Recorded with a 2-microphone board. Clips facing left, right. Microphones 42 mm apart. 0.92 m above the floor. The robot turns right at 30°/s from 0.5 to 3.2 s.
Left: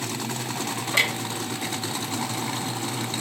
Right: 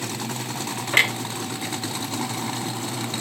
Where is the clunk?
50° right (ahead or behind), 1.5 m; by 3.2 s 60° right (ahead or behind), 1.5 m.